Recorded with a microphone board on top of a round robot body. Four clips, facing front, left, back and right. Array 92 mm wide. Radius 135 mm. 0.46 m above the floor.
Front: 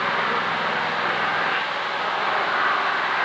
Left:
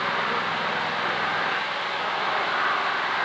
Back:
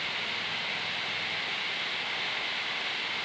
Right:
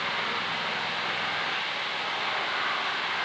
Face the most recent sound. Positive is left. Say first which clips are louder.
# left 5 dB, front 13 dB
turn(degrees=25)